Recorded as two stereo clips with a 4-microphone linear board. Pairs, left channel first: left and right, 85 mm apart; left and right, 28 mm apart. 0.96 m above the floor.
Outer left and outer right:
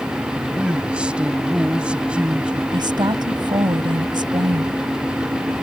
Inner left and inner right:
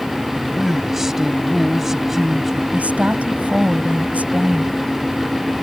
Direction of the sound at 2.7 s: 70° right (ahead or behind).